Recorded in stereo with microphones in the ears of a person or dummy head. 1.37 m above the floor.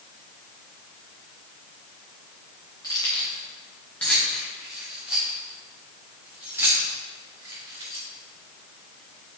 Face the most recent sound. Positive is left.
turn(degrees=-20)  # may be behind; listen again after turning